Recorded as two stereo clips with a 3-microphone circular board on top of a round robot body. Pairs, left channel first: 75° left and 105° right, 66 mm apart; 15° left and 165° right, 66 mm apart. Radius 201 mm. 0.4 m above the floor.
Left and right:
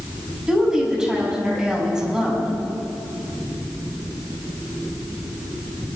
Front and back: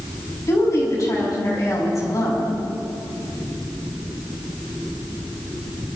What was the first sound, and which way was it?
A woman speaking, 30° right.